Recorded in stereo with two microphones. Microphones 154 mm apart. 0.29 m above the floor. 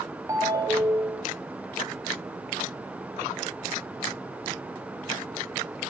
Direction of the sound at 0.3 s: 20° right (ahead or behind).